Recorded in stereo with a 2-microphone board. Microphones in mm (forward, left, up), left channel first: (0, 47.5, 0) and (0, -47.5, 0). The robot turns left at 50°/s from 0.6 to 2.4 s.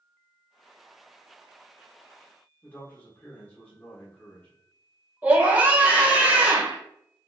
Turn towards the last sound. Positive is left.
turn(degrees=-20)  # may be behind; listen again after turning